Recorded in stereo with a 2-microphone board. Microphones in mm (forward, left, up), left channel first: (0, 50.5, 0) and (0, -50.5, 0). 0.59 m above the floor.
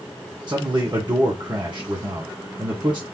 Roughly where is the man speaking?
Right.